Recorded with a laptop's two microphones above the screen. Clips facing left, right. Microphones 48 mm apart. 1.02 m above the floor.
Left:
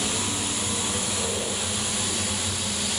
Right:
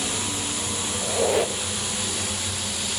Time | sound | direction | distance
0.0 | a fan | 15° left (ahead or behind) | 0.8 m
1.0 | a squeak | 85° right | 0.5 m